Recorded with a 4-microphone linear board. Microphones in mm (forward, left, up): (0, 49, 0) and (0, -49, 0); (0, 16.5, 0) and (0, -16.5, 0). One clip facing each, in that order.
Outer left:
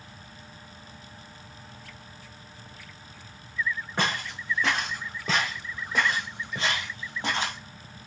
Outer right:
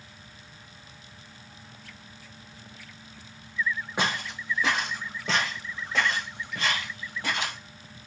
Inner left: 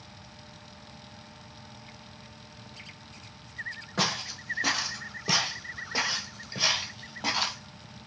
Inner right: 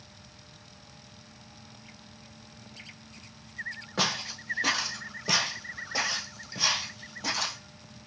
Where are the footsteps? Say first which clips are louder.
Outer left 1 dB, even; 15° right (ahead or behind), 1.7 m; by 7.6 s 30° left (ahead or behind), 1.5 m.